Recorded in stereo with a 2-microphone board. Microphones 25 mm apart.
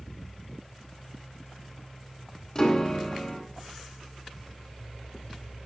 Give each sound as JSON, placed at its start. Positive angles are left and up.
{"t": 2.5, "sound": "a piano", "side_deg": 25, "distance_m": 1.1}